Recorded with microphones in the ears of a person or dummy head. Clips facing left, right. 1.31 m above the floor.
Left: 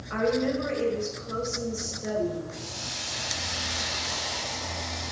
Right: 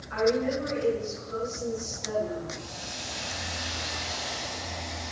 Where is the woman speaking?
65° left (ahead or behind), 5.5 m.